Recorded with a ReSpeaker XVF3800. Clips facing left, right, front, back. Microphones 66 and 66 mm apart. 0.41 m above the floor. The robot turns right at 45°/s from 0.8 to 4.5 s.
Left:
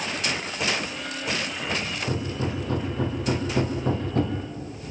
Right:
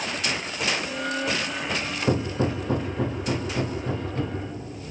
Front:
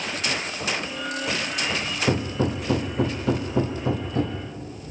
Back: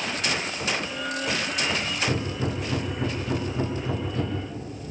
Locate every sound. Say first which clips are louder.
2.1 s hammering: right 7 dB, front 4 dB; 45° right, 3.5 m; by 4.4 s 60° left, 3.5 m